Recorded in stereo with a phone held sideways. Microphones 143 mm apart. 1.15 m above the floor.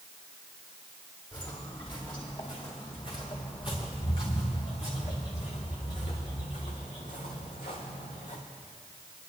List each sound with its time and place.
1.3 s footsteps: 30° left (ahead or behind), 4.5 m; by 8.4 s 70° left (ahead or behind), 3.5 m